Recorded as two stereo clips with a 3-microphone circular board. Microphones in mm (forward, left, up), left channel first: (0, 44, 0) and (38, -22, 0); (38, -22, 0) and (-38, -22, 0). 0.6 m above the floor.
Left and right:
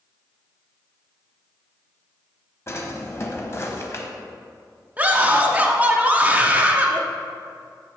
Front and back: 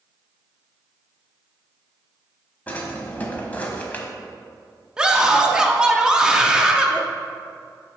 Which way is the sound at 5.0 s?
110° right.